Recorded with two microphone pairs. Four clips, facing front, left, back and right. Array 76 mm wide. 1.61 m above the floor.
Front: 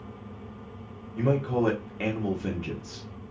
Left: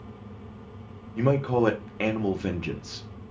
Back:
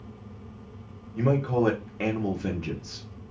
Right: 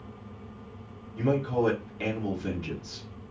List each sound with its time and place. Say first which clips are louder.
1.2 s a man speaking: left 3 dB, back 1 dB; 95° left, 1.0 m